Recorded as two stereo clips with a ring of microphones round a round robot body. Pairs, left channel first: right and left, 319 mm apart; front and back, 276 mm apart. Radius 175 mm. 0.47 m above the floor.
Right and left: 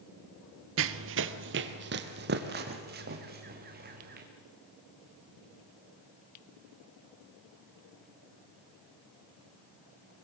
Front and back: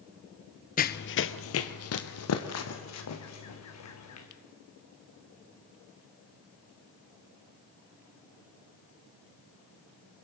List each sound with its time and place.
0.8 s running footsteps: 50° left, 0.6 m; by 4.2 s 25° left, 3 m